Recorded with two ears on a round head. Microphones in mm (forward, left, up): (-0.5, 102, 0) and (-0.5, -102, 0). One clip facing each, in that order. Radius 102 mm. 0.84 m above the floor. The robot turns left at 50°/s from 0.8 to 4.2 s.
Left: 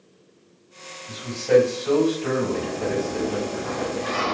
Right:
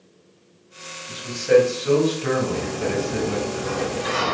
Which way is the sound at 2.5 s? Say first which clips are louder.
Right 1 dB; 25° left.